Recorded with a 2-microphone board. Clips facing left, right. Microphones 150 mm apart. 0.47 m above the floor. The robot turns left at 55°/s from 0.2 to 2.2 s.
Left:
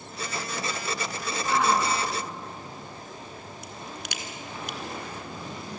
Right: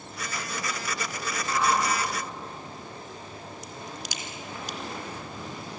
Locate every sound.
1.4 s a shout: 70° left (ahead or behind), 5 m; by 4.6 s 30° left (ahead or behind), 5 m
3.6 s a crack: 60° left (ahead or behind), 1.9 m